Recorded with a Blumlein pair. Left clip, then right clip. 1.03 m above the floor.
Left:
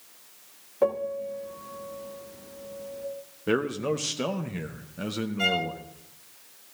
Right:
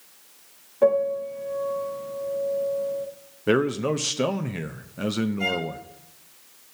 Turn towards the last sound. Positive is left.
turn(degrees=50)